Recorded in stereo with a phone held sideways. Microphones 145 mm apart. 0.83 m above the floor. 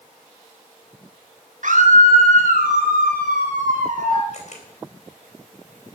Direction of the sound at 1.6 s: 65° right (ahead or behind).